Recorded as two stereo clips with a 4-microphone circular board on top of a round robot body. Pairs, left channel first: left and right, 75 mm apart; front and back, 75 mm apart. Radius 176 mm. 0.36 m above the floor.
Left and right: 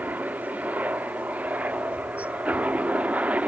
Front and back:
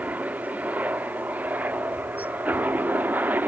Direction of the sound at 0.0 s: 135° right.